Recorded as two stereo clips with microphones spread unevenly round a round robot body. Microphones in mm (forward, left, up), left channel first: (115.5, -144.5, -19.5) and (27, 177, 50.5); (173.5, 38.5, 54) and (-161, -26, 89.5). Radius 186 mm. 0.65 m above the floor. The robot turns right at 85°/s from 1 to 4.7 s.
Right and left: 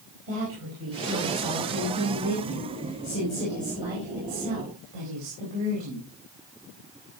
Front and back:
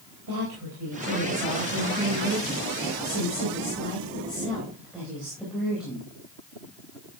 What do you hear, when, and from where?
0.3 s a woman speaking: 150° left, 4.5 m; by 6.1 s 105° left, 4.5 m